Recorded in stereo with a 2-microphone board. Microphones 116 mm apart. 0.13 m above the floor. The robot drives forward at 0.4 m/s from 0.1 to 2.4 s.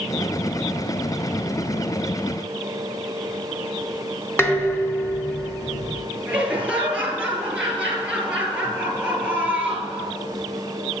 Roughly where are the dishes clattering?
Left.